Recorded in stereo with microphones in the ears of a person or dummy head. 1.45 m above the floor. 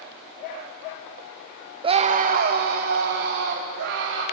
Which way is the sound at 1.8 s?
25° right (ahead or behind).